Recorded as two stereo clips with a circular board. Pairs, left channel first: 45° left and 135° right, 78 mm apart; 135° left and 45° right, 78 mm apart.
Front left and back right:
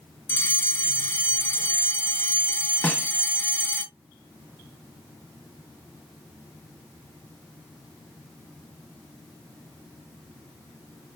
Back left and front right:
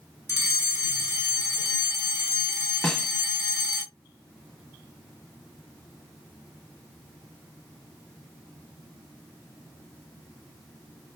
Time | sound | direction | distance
0.3 | a fire alarm | straight ahead | 3 m
2.8 | a snare drum | 75° left | 0.9 m